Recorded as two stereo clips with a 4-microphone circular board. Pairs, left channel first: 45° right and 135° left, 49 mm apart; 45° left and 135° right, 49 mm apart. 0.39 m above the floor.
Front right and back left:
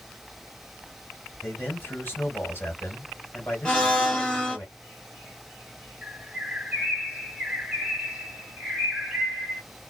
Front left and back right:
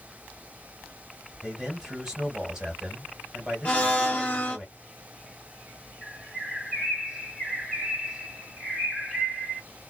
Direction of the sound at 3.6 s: 10° left.